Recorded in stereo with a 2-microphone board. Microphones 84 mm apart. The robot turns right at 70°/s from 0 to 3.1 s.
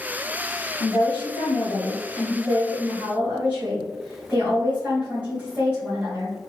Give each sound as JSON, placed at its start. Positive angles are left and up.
{"t": 0.8, "sound": "a woman speaking", "azimuth_deg": 50, "distance_m": 1.7}